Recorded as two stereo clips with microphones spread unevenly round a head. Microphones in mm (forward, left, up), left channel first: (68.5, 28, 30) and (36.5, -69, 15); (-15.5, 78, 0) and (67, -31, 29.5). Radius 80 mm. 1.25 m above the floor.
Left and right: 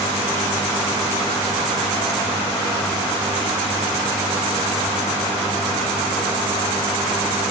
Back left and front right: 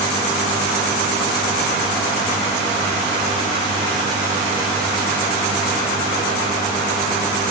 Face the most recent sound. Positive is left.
No sound to turn to.